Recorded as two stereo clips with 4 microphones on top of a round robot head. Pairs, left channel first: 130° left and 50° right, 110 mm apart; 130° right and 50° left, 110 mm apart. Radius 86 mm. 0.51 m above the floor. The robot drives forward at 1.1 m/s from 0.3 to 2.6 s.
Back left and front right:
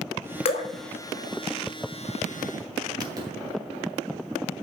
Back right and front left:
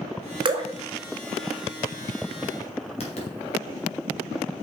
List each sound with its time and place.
0.5 s dripping: 95° left, 1.2 m; by 0.7 s 110° left, 1.3 m
3.0 s writing: 105° right, 2.5 m